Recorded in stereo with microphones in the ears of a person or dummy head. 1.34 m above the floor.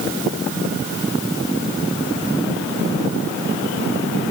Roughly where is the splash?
I don't hear a splash.